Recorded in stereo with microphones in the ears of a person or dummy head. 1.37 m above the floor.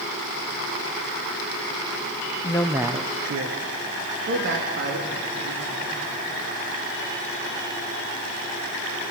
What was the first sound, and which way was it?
A man speaking, 25° left (ahead or behind).